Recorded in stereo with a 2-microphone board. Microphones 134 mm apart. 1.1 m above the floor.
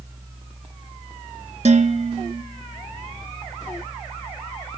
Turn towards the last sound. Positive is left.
turn(degrees=-60)  # may be behind; listen again after turning